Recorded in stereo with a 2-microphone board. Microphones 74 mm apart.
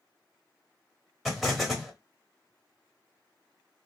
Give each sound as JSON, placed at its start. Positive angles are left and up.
{"t": 1.2, "sound": "an explosion", "side_deg": 0, "distance_m": 0.9}